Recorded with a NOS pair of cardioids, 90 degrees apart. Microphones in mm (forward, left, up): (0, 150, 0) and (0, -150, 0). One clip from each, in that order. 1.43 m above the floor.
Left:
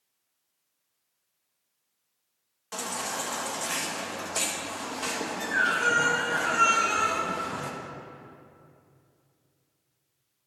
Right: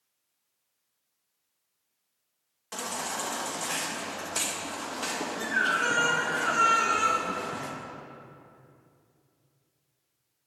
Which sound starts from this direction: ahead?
A baby crying, at 2.7 s.